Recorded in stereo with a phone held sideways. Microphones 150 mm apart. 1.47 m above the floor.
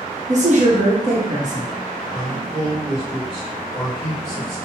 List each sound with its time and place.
0.3 s a woman speaking: 55° right (ahead or behind), 0.9 m
2.1 s a man speaking: centre (ahead or behind), 1.6 m